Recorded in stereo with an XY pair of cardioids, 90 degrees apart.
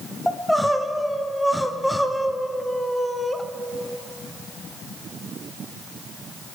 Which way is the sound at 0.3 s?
5° left.